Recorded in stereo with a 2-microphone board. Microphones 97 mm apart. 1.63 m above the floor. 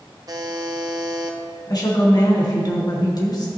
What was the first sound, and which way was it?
A buzzer, 40° right (ahead or behind).